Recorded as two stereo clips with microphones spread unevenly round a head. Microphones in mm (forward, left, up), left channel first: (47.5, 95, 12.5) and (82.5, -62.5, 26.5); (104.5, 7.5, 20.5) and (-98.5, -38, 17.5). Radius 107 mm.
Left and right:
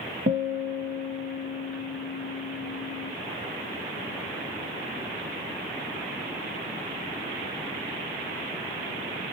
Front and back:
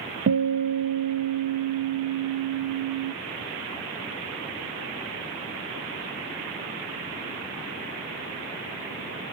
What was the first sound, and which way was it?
A guitar, 125° right.